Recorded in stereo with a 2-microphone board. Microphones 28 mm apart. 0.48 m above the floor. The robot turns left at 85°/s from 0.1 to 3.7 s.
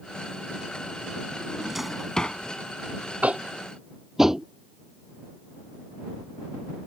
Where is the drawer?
40° right (ahead or behind); by 2.4 s 45° left (ahead or behind).